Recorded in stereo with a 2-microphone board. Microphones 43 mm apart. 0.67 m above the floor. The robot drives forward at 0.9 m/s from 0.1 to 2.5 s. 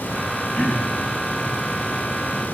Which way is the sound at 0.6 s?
35° left (ahead or behind).